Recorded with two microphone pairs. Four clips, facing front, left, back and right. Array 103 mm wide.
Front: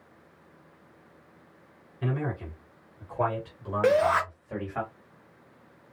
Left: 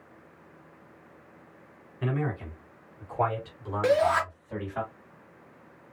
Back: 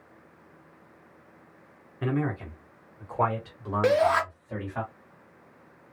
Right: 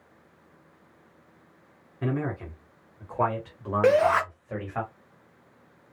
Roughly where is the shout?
Right.